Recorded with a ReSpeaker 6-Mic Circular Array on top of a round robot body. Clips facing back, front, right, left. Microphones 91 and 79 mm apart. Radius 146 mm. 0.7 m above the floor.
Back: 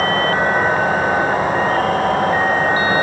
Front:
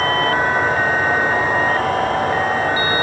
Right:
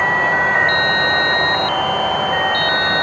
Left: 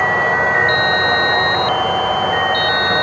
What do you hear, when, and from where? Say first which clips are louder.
0.0 s an insect: back 1 dB, left 1 dB; 165° left, 4 m